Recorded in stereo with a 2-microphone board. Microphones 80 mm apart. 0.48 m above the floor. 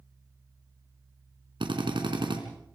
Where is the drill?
80° right, 3.5 m.